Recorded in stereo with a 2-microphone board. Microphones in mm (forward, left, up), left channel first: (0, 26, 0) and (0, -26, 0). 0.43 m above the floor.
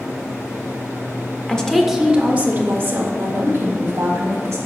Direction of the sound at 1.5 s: 20° left (ahead or behind).